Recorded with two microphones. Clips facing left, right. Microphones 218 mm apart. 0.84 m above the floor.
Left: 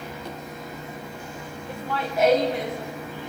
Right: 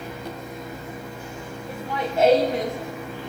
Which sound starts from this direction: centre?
Laughter, at 1.7 s.